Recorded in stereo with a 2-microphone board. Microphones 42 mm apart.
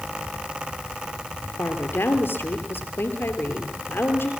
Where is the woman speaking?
60° left (ahead or behind), 3 m.